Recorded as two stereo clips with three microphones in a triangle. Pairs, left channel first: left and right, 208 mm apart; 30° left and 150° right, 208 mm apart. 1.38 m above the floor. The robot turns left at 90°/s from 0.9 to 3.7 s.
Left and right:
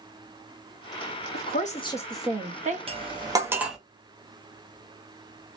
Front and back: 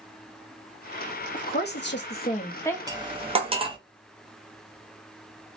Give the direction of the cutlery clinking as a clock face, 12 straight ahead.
3 o'clock.